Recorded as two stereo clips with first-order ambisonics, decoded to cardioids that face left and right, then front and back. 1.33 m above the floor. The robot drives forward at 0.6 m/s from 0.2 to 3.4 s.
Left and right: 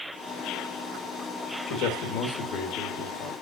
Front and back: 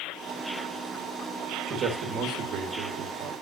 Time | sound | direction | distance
1.7 | a man speaking | 120° left | 1.4 m